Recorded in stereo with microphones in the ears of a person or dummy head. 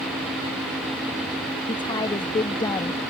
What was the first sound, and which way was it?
A woman speaking, 25° left (ahead or behind).